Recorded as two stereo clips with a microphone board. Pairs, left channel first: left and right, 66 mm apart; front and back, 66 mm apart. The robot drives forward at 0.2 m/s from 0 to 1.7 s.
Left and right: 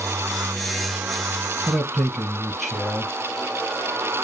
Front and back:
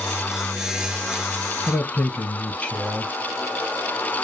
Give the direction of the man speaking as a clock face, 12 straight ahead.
12 o'clock.